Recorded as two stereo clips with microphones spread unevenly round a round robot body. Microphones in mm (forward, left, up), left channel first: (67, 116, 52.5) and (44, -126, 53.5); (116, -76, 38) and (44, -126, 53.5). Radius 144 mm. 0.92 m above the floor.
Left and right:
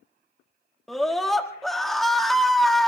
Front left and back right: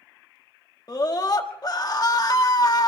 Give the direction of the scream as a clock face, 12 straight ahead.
12 o'clock.